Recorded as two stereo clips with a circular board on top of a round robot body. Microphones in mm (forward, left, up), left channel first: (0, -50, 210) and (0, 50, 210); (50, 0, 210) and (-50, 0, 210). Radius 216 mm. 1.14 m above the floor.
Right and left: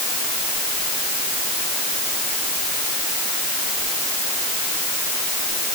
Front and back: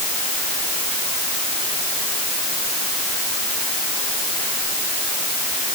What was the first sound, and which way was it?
Only background noise.